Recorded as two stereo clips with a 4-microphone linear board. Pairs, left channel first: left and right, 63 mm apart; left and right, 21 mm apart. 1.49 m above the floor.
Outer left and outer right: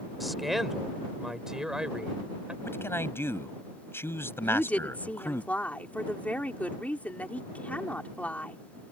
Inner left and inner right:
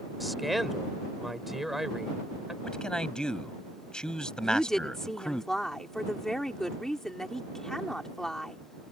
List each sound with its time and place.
0.2 s a man speaking: centre (ahead or behind); by 2.5 s 15° right (ahead or behind)
2.6 s a man speaking: 40° left (ahead or behind)
4.4 s a woman speaking: 25° left (ahead or behind)